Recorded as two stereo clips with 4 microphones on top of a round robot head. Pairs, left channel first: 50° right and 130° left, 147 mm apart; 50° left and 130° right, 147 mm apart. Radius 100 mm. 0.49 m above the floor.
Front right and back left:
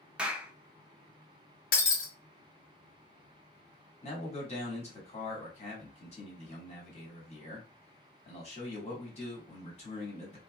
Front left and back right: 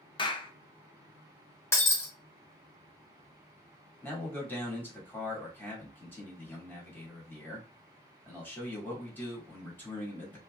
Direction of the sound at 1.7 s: 25° right.